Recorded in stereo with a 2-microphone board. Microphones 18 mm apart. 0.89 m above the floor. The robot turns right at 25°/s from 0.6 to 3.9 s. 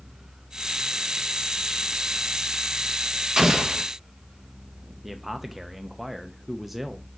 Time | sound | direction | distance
3.4 | an explosion | 35° right (ahead or behind) | 1.1 m
5.0 | a man speaking | 10° right (ahead or behind) | 0.7 m